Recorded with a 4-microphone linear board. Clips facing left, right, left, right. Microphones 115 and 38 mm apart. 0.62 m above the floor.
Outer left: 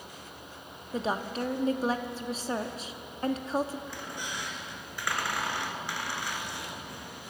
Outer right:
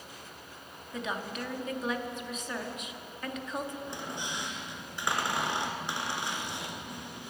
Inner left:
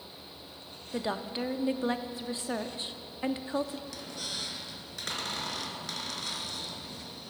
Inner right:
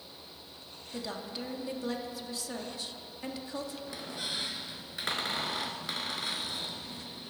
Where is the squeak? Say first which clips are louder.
Outer right 1 dB, inner right 1 dB; 25° right (ahead or behind), 1.0 m.